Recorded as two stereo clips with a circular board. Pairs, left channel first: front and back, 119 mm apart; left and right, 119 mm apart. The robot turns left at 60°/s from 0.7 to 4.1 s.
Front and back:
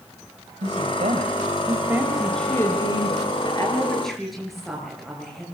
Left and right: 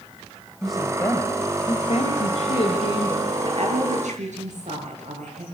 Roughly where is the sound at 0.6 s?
Behind.